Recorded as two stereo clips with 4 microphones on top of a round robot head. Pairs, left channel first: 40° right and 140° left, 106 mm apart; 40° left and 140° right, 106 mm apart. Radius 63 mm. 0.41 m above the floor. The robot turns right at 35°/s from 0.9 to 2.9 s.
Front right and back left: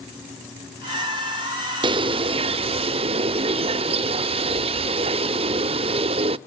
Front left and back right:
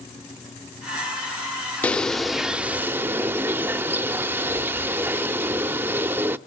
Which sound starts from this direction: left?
A bird, at 1.8 s.